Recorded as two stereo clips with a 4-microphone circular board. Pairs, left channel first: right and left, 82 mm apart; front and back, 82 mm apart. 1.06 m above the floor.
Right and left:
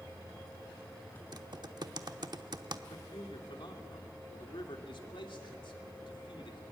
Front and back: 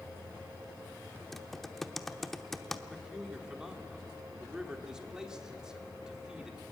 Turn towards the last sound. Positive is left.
turn(degrees=-100)